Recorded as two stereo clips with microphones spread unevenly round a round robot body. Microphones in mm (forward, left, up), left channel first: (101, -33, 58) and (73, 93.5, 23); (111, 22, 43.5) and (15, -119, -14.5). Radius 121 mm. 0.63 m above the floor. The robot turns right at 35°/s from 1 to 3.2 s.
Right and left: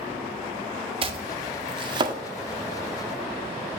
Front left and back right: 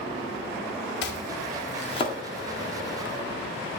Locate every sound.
1.0 s chopping: 95° left, 1.5 m; by 2.2 s 135° left, 1.5 m